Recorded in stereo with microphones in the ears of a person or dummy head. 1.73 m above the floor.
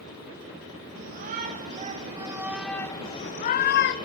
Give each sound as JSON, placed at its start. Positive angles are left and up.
{"t": 0.9, "sound": "a shout", "side_deg": -50, "distance_m": 2.0}